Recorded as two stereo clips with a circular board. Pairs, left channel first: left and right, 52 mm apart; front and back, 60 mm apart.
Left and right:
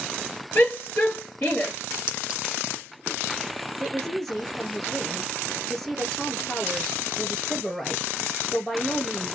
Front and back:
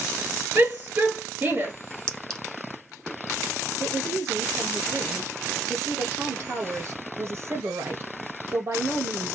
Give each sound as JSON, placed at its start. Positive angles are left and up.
{"t": 0.6, "sound": "a shout", "azimuth_deg": 140, "distance_m": 2.5}
{"t": 2.1, "sound": "a clink", "azimuth_deg": -55, "distance_m": 0.8}
{"t": 3.8, "sound": "a woman speaking", "azimuth_deg": 170, "distance_m": 1.6}